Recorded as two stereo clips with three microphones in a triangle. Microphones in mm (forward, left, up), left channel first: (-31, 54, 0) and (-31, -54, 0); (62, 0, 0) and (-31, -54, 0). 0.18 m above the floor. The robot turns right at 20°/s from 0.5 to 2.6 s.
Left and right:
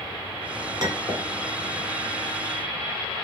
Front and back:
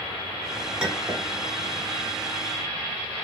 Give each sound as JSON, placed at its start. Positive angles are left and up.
{"t": 0.8, "sound": "a clink", "azimuth_deg": -75, "distance_m": 1.1}